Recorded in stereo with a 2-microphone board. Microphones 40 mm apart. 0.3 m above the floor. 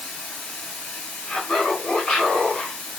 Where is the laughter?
35° left (ahead or behind), 1.7 m.